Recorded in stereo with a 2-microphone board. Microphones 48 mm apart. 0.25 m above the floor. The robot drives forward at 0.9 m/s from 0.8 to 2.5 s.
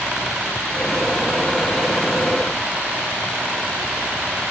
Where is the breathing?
No breathing in this recording.